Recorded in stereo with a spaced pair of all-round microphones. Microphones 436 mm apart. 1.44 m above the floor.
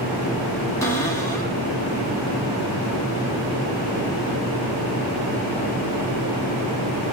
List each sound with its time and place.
0.8 s a cupboard door: 5° left (ahead or behind), 2.5 m